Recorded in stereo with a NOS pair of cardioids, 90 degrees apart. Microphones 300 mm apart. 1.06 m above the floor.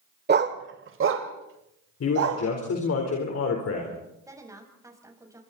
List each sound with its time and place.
0.3 s a dog barking: 35° right, 1.6 m; by 2.4 s 50° right, 3.5 m
2.0 s a man speaking: 55° left, 4.5 m
4.3 s a woman speaking: 10° right, 7.5 m